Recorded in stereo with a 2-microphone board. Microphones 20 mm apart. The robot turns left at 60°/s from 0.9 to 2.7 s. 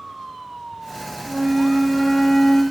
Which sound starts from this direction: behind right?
A flute, at 1.3 s.